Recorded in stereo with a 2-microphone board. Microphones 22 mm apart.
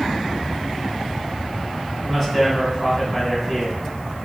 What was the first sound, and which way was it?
A man speaking, 15° left (ahead or behind).